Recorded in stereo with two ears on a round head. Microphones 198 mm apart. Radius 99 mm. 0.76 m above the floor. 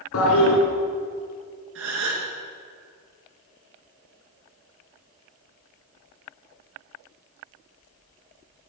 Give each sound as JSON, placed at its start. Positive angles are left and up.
{"t": 0.1, "sound": "a toilet flushing", "side_deg": 70, "distance_m": 2.0}
{"t": 1.8, "sound": "a gasp", "side_deg": -60, "distance_m": 3.0}